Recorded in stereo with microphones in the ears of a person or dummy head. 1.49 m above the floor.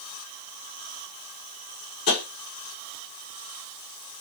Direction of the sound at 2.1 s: 55° left (ahead or behind).